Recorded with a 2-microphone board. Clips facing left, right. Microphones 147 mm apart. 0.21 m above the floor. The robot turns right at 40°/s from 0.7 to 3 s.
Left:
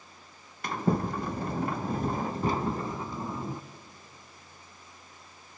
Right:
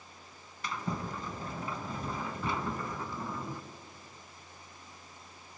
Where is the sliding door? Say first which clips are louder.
Left 9 dB; 60° left, 0.7 m; by 3.6 s 155° left, 0.7 m.